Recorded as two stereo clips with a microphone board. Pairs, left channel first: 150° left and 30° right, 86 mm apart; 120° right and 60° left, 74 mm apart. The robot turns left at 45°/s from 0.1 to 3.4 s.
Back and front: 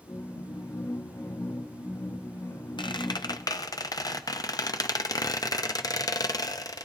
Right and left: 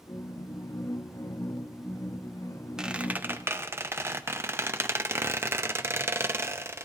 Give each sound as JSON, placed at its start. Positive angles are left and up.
{"t": 2.8, "sound": "a squeak", "azimuth_deg": 140, "distance_m": 0.6}